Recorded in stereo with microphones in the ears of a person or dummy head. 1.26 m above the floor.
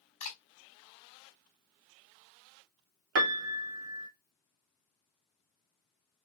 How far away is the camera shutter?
About 3.5 m.